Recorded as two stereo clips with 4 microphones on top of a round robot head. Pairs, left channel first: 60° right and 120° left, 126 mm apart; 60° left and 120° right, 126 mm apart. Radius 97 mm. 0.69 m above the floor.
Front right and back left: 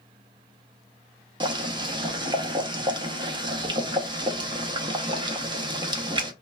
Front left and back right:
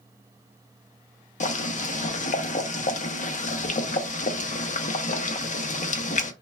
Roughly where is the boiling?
Left.